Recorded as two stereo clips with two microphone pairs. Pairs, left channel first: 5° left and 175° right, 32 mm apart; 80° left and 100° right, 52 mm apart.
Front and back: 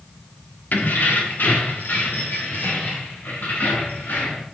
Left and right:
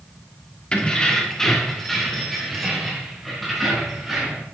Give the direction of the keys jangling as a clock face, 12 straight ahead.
12 o'clock.